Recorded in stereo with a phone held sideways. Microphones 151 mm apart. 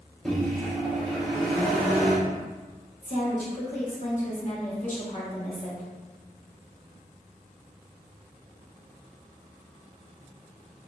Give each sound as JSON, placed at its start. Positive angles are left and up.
{"t": 0.2, "sound": "a microwave", "side_deg": 5, "distance_m": 1.0}
{"t": 3.0, "sound": "a woman speaking", "side_deg": 55, "distance_m": 1.6}